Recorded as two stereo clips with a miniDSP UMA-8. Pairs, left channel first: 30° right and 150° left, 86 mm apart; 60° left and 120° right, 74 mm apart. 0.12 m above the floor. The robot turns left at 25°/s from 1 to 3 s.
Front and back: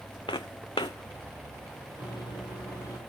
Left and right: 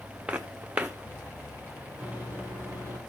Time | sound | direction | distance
0.3 | footsteps | 50° right | 0.6 m
2.0 | a microwave | 50° right | 3 m